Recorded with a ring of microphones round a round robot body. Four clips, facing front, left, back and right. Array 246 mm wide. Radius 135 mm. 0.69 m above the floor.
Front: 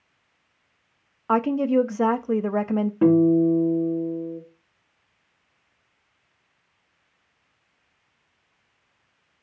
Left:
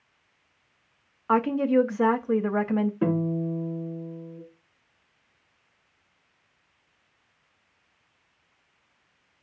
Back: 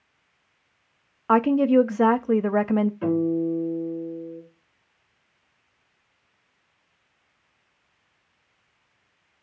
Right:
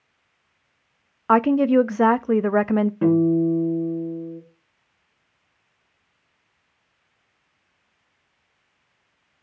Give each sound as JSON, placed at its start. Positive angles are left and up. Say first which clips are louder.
{"t": 1.3, "sound": "a woman speaking", "louder": "right 5 dB, back 3 dB", "azimuth_deg": -100, "distance_m": 0.6}
{"t": 3.0, "sound": "a guitar", "louder": "right 9 dB, front 6 dB", "azimuth_deg": -25, "distance_m": 5.0}